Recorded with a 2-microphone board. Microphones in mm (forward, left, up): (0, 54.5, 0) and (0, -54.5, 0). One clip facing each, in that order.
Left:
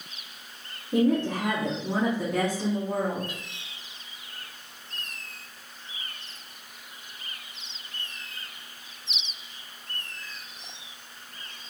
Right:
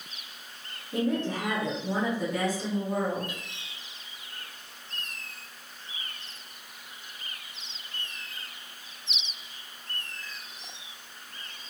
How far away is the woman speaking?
About 1.3 m.